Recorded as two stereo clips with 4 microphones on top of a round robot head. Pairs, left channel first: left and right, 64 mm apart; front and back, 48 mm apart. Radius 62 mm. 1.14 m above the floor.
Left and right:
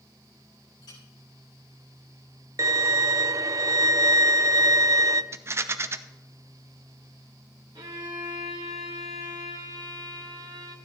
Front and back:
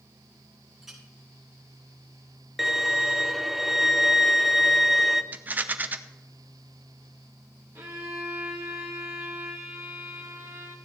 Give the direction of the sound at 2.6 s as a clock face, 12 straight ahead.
3 o'clock.